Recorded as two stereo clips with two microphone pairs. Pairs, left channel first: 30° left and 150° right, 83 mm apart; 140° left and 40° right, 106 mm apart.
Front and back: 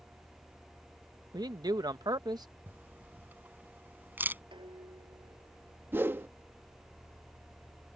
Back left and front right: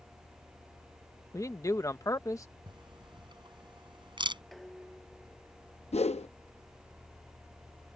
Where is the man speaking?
165° right.